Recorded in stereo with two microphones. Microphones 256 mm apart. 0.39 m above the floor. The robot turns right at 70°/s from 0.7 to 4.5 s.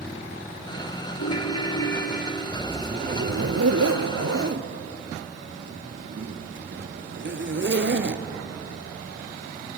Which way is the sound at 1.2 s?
80° left.